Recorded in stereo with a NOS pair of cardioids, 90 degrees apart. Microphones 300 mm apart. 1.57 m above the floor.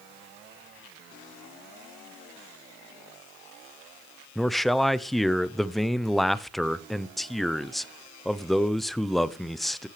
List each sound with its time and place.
4.3 s a man speaking: straight ahead, 0.7 m